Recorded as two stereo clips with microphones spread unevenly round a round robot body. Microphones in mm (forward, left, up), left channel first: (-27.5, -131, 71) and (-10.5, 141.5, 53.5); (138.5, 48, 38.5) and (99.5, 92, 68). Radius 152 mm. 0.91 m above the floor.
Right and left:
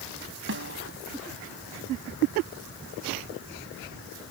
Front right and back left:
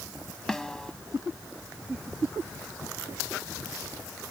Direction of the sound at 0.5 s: 35° left.